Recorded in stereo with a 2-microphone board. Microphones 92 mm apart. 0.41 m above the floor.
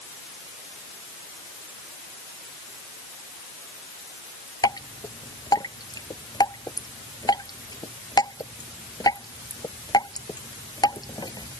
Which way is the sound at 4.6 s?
45° left (ahead or behind).